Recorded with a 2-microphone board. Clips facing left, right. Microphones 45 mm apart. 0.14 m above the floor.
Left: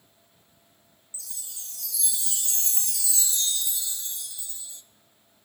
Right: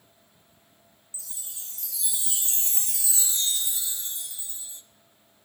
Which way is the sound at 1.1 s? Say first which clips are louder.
Even; 25° right (ahead or behind).